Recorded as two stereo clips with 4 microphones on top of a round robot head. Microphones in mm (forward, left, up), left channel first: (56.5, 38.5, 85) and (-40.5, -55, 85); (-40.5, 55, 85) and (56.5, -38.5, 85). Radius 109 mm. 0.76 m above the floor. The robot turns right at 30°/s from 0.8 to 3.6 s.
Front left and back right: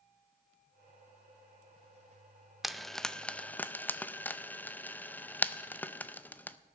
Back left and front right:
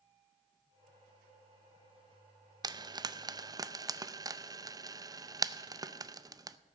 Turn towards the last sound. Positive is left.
turn(degrees=-20)